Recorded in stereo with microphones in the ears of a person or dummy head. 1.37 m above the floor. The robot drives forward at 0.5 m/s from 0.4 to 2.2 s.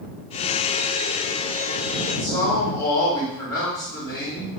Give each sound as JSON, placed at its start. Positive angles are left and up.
{"t": 2.1, "sound": "a man speaking", "side_deg": 20, "distance_m": 2.0}